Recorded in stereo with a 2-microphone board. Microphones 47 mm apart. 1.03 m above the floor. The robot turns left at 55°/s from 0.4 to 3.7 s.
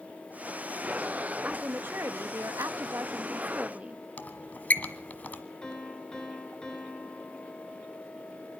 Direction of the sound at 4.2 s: 40° left (ahead or behind).